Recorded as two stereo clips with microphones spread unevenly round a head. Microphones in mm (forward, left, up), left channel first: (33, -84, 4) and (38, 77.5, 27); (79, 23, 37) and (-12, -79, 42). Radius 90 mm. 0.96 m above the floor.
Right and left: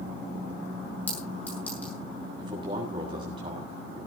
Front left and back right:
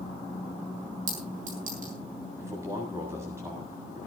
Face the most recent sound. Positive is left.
turn(degrees=155)